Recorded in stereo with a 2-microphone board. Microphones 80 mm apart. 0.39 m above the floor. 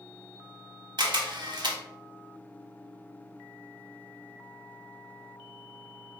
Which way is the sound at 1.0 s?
65° right (ahead or behind).